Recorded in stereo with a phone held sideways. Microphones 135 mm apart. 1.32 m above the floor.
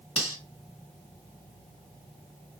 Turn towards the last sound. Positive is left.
turn(degrees=45)  # may be behind; listen again after turning